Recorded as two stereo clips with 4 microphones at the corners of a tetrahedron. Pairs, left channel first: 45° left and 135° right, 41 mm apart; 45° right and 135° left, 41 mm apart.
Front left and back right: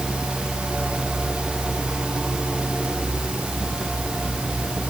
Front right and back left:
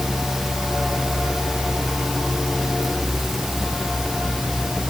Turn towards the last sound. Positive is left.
No sound to turn to.